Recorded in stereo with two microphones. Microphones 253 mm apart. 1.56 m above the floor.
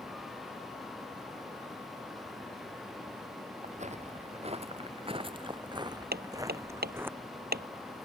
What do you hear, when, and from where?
3.6 s footsteps: 30° right (ahead or behind); by 7.1 s 10° right (ahead or behind)
6.1 s hammering: 40° right (ahead or behind)